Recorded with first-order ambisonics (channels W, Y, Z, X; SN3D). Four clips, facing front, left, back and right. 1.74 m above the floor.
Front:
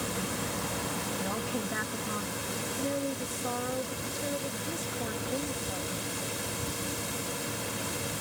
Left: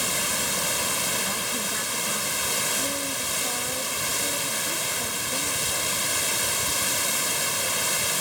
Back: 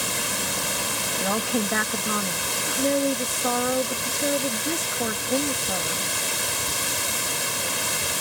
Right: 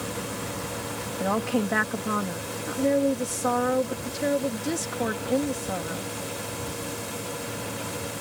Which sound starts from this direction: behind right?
A woman speaking, at 1.2 s.